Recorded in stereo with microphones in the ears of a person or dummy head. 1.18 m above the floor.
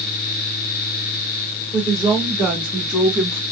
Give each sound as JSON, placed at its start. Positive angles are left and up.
{"t": 1.7, "sound": "a woman speaking", "side_deg": 5, "distance_m": 3.0}